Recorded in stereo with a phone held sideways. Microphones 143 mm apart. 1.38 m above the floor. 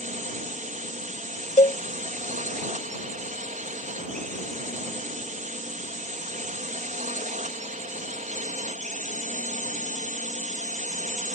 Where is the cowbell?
55° left (ahead or behind).